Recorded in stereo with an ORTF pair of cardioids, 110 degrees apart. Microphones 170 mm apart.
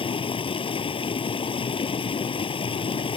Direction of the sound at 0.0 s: 30° left.